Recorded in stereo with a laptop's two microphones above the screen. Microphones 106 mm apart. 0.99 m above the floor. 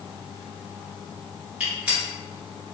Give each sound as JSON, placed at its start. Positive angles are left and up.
{"t": 1.6, "sound": "a gunshot", "side_deg": -15, "distance_m": 1.4}